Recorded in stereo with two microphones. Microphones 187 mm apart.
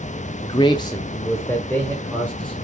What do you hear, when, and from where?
0.4 s a man speaking: 25° left (ahead or behind), 0.6 m; by 2.5 s 10° left (ahead or behind), 3 m